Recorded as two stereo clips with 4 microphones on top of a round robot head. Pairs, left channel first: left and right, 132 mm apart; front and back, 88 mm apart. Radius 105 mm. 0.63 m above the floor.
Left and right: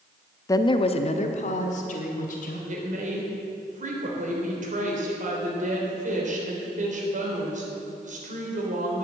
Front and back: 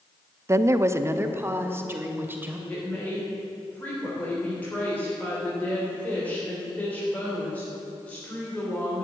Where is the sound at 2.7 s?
75° right, 3.5 m.